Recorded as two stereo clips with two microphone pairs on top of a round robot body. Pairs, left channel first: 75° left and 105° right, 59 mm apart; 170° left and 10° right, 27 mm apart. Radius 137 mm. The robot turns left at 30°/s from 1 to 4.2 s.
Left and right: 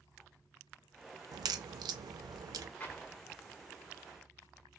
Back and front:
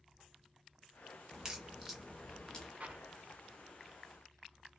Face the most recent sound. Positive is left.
turn(degrees=-20)